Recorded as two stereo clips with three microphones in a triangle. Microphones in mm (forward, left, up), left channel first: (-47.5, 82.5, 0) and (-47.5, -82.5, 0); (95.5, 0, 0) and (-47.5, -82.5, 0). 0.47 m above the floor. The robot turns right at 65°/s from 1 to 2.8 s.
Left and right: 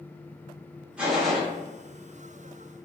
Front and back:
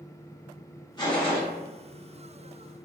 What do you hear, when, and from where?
1.0 s a gunshot: 15° right, 0.7 m; by 1.4 s 15° left, 0.7 m